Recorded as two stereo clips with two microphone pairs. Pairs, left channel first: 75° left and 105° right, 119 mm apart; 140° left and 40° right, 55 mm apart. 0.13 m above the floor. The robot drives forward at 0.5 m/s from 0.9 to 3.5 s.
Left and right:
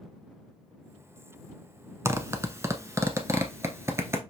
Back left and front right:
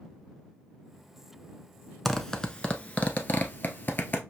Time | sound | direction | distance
2.0 | a zipper | 135° right | 0.6 m